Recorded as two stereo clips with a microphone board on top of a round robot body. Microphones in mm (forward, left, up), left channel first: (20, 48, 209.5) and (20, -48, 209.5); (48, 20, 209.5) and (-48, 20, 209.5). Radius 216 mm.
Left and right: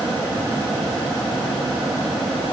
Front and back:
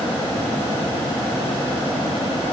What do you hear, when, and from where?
Only background noise.